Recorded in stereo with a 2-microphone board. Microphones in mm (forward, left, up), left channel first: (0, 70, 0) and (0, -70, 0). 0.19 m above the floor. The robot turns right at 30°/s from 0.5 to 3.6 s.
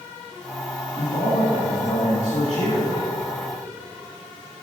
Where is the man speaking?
55° left, 2.5 m; by 3.1 s 115° left, 2.5 m.